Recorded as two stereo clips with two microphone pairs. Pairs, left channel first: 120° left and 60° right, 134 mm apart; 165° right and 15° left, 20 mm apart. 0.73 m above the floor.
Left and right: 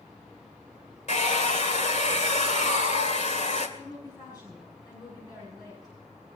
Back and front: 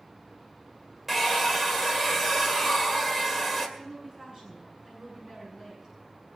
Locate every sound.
1.1 s a hair dryer: 90° left, 2 m
3.8 s a woman speaking: 60° left, 6 m